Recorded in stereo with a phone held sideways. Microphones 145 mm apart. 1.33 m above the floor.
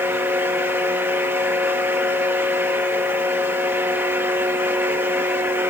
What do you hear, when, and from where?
0.0 s a fan: 15° right (ahead or behind), 1.4 m